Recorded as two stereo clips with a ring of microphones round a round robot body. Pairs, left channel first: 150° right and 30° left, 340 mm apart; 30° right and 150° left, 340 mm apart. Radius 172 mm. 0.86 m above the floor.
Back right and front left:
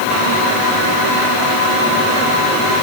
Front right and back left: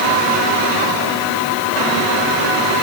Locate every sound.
Only background noise.